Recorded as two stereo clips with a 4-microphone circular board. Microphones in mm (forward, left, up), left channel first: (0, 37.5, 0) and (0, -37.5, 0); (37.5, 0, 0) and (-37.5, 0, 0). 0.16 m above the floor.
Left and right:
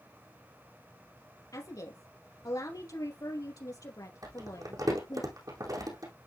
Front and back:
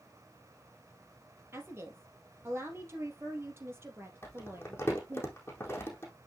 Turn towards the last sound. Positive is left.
turn(degrees=-60)